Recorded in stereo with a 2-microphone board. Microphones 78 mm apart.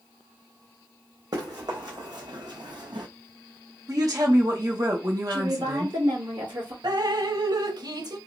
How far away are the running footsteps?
About 2.5 m.